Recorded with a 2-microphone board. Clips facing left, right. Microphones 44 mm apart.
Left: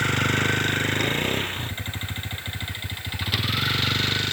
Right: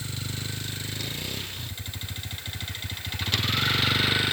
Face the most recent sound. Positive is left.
turn(degrees=-10)  # may be behind; listen again after turning